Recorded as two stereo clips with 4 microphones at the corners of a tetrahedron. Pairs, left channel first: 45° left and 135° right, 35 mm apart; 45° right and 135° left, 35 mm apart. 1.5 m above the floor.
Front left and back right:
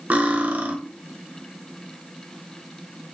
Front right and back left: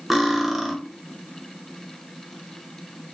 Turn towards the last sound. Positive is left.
turn(degrees=-140)